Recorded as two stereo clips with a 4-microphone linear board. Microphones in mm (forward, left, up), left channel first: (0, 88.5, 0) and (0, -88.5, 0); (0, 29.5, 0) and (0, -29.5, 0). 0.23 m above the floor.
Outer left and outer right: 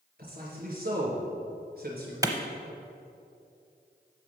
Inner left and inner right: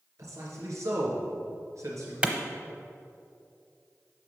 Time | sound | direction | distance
0.2 | a man speaking | 60° right (ahead or behind) | 3 m
2.2 | a clap | 20° right (ahead or behind) | 0.8 m